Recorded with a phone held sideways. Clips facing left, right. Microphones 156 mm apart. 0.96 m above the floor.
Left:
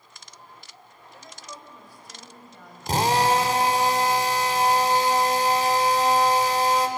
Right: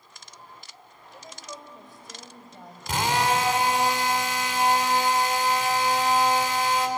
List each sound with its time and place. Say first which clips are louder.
1.1 s a woman speaking: right 2 dB; 15° right (ahead or behind), 3.5 m; by 3.9 s 35° right (ahead or behind), 5.5 m
2.9 s a drill: left 3 dB; 35° left (ahead or behind), 2.0 m